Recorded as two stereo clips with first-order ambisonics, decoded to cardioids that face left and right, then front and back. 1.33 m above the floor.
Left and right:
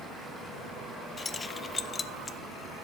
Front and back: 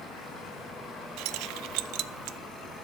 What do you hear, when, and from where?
1.2 s keys jangling: 165° left, 0.7 m